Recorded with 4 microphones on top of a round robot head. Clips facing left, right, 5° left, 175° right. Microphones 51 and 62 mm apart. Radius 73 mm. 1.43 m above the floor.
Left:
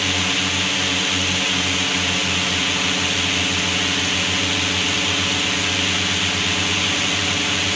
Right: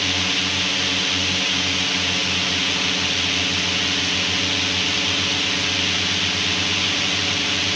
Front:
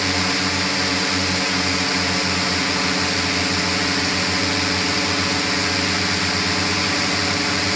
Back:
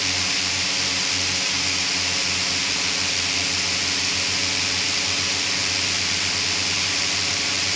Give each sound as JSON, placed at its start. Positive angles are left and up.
{"t": 0.0, "sound": "a drone", "azimuth_deg": 10}